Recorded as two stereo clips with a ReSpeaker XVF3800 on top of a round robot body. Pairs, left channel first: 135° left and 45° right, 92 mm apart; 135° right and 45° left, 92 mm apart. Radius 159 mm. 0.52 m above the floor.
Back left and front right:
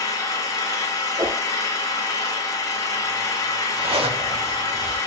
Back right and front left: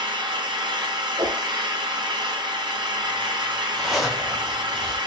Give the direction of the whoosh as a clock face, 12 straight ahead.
12 o'clock.